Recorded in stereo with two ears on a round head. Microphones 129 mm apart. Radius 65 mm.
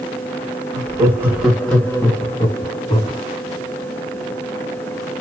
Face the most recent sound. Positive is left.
turn(degrees=45)  # may be behind; listen again after turning